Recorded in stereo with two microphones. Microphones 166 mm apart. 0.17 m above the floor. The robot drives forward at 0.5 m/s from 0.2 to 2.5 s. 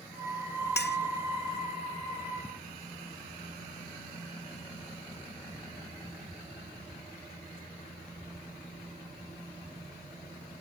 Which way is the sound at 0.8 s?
80° left.